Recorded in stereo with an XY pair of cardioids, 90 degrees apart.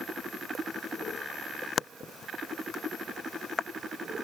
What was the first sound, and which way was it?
Only background noise.